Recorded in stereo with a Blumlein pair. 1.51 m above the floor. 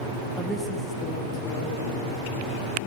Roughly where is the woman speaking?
Ahead.